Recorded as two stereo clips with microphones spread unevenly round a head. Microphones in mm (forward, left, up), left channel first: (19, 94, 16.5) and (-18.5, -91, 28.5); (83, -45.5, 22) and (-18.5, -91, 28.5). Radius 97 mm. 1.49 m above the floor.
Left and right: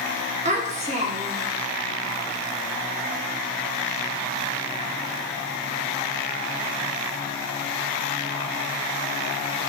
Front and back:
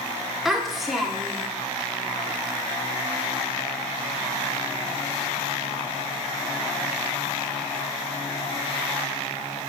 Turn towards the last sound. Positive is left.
turn(degrees=-70)